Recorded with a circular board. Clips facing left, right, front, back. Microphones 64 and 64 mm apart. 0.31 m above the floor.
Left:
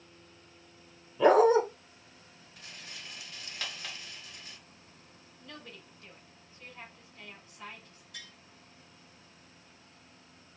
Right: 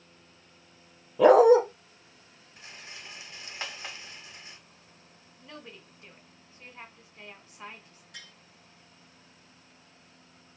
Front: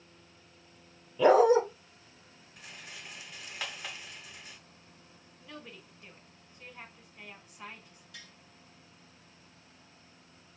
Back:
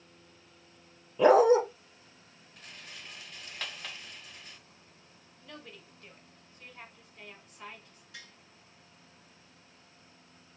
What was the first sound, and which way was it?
A dog barking, 115° right.